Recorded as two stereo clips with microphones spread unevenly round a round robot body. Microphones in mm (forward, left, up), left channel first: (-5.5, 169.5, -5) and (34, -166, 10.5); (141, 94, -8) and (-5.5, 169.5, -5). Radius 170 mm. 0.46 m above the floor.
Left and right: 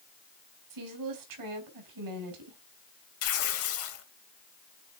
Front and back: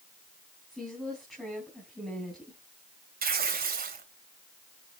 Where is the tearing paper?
140° left, 3 m.